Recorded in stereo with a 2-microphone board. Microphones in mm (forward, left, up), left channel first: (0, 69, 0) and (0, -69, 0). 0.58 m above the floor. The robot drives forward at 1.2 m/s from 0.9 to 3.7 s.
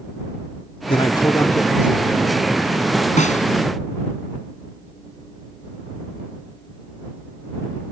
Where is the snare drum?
60° left (ahead or behind); by 3.5 s 65° left (ahead or behind).